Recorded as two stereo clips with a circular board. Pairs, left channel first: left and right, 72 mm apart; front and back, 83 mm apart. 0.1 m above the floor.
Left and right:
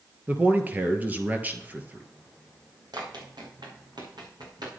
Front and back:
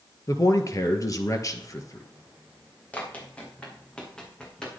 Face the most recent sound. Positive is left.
turn(degrees=-80)